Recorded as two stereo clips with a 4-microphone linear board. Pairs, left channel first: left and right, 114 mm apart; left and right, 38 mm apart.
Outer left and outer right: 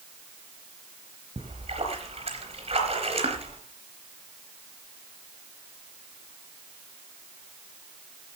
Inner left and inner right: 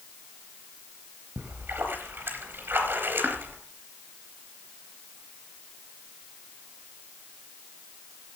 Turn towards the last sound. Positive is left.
turn(degrees=-55)  # may be behind; listen again after turning